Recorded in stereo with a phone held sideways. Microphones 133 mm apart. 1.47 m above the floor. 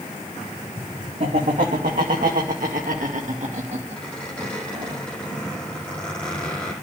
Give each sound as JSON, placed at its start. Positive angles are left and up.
{"t": 1.2, "sound": "laughter", "side_deg": -70, "distance_m": 2.5}
{"t": 4.0, "sound": "a squeak", "side_deg": 10, "distance_m": 8.0}